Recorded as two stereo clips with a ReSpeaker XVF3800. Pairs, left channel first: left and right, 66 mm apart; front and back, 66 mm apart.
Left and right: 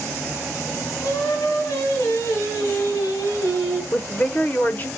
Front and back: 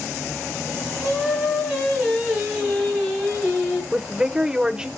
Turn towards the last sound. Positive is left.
turn(degrees=115)